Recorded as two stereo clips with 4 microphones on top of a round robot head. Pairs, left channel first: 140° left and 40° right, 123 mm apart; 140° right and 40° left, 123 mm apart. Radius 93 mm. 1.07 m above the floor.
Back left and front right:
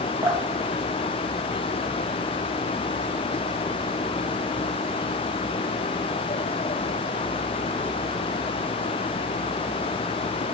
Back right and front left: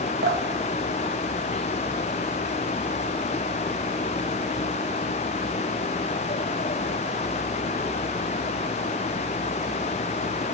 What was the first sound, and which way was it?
Dripping, 25° left.